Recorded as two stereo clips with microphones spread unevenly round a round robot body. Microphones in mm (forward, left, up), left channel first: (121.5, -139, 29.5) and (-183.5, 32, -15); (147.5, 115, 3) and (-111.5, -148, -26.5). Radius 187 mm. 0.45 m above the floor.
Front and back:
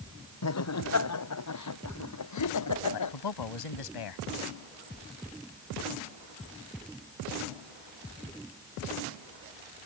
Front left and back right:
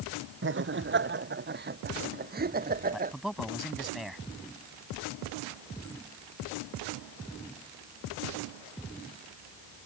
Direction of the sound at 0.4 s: 75° right.